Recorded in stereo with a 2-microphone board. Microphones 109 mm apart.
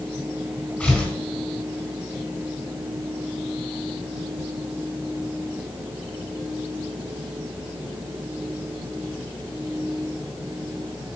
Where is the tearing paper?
15° left (ahead or behind), 3.5 m.